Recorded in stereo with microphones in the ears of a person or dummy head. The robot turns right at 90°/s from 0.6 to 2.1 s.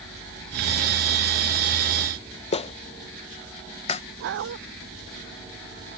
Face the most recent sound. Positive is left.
turn(degrees=-65)  # may be behind; listen again after turning